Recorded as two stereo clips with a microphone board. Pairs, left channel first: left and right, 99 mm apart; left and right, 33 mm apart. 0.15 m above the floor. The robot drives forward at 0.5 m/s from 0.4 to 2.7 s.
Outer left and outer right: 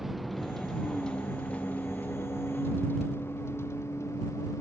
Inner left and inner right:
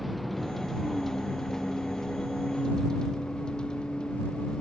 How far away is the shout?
No shout in this recording.